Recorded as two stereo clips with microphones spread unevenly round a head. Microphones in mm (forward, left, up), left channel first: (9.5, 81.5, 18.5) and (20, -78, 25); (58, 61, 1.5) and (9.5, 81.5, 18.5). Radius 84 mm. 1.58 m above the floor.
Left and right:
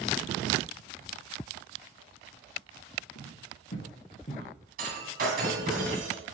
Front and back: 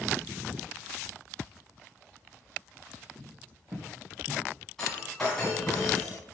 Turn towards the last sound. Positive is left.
turn(degrees=-120)